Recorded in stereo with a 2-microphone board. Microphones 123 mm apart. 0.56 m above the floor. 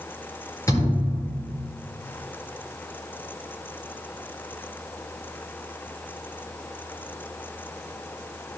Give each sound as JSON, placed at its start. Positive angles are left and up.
{"t": 0.7, "sound": "a thud", "side_deg": 25, "distance_m": 5.5}